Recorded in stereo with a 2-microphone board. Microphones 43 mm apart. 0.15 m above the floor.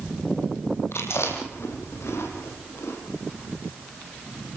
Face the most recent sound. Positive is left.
turn(degrees=75)  # may be behind; listen again after turning